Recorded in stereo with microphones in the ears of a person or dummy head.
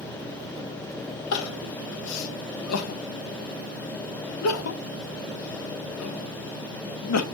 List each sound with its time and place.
1.3 s crying: 80° left, 0.7 m